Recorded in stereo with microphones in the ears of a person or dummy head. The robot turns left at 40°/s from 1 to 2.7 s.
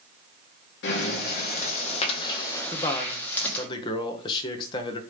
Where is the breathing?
80° left, 1.2 m; by 3.7 s 10° left, 1.2 m.